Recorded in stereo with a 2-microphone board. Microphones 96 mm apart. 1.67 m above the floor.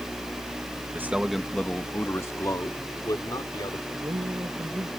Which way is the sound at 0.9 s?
20° right (ahead or behind).